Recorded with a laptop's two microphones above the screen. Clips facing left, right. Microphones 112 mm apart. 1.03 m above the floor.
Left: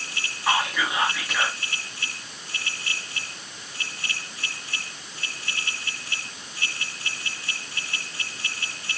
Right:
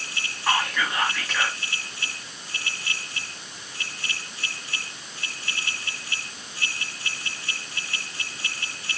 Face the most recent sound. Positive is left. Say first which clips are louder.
# left 1 dB
turn(degrees=10)  # may be behind; listen again after turning